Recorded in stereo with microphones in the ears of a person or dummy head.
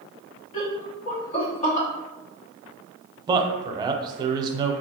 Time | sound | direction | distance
0.5 | laughter | 35° left (ahead or behind) | 1.0 m
3.3 | a man speaking | 20° right (ahead or behind) | 0.5 m